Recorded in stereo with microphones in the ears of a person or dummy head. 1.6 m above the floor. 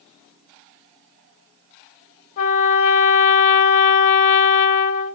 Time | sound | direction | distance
2.4 | a trumpet | 45° left (ahead or behind) | 1.3 m